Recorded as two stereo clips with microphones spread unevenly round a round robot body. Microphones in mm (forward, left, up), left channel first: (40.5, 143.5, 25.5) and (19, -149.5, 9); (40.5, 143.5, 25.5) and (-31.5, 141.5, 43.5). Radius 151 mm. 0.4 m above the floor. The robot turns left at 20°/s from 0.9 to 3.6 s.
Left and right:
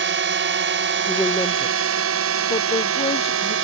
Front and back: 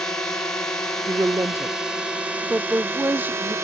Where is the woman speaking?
155° left; by 3.5 s 105° left.